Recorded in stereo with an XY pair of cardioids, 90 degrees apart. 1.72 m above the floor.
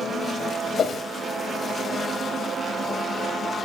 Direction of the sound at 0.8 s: 60° left.